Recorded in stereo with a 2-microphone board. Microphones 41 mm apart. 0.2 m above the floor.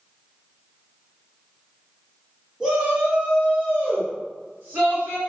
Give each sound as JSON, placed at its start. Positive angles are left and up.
{"t": 2.6, "sound": "a shout", "side_deg": -15, "distance_m": 1.1}